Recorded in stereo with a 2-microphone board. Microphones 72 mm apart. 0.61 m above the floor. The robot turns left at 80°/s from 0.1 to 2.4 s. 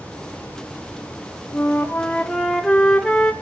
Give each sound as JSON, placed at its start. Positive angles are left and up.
{"t": 1.5, "sound": "a flute", "azimuth_deg": 75, "distance_m": 1.3}